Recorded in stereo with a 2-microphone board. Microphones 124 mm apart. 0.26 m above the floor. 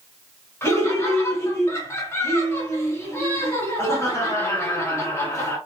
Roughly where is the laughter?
Left.